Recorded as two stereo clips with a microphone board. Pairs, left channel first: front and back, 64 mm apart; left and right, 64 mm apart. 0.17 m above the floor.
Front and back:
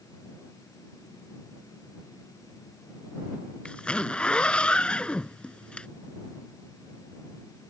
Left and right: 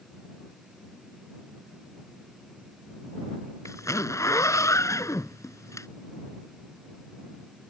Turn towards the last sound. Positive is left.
turn(degrees=70)